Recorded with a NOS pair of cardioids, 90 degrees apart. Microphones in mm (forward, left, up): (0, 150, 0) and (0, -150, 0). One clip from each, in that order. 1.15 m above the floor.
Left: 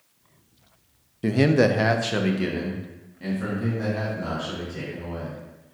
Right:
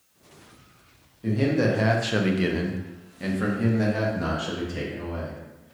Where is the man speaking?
55° left, 0.6 m; by 5.8 s 55° right, 2.5 m.